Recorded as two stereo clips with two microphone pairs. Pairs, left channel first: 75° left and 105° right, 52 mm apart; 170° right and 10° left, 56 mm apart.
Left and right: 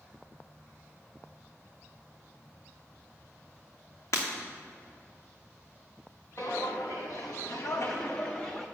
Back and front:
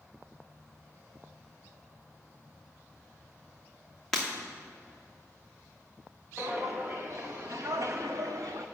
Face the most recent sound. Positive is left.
turn(degrees=0)